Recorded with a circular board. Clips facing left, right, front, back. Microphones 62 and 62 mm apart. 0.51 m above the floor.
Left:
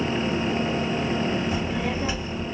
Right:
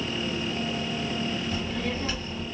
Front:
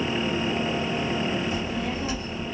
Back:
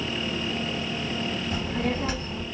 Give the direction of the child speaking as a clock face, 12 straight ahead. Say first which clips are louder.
Left 4 dB, back 1 dB; 7 o'clock.